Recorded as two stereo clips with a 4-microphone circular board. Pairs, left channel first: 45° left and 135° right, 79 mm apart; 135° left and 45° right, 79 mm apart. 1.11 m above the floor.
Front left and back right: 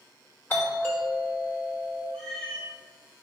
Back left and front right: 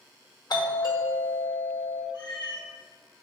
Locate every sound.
0.5 s a doorbell: 110° left, 2.5 m
2.1 s a cat meowing: 125° left, 2.5 m